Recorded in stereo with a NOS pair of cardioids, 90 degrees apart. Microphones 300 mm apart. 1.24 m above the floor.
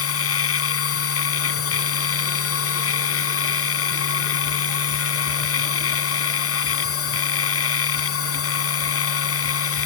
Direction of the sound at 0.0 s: 45° left.